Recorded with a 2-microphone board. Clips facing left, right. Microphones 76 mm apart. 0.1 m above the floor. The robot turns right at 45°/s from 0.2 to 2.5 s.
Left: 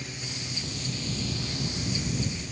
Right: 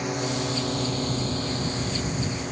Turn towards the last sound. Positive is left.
turn(degrees=-55)  # may be behind; listen again after turning